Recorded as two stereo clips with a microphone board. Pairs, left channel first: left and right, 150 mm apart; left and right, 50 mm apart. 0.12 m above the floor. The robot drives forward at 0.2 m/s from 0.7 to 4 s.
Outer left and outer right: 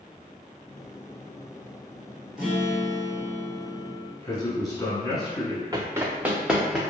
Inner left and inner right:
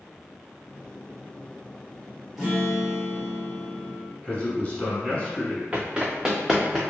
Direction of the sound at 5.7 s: 25° right (ahead or behind).